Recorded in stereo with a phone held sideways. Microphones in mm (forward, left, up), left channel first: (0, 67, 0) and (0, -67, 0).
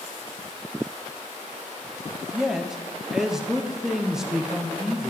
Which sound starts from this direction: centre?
A man speaking, at 2.3 s.